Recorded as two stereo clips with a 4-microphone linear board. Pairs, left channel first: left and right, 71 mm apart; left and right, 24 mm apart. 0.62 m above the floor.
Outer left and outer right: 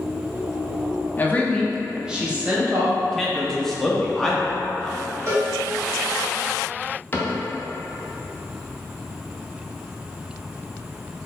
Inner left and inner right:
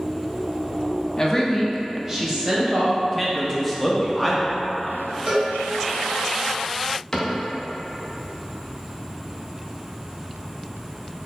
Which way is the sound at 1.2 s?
30° left (ahead or behind).